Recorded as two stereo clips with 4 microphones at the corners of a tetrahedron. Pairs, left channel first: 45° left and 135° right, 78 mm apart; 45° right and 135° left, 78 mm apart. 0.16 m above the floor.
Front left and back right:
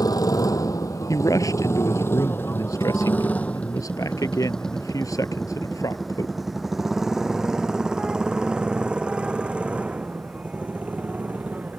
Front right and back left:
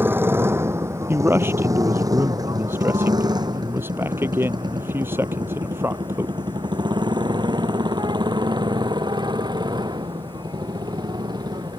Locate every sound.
0.0 s a motorcycle: 75° left; by 11.8 s 155° left
1.1 s a man speaking: 80° left